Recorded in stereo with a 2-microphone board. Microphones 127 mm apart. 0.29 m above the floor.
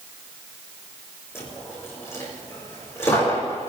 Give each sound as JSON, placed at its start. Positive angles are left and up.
{"t": 1.4, "sound": "a dropped coin", "side_deg": 20, "distance_m": 4.0}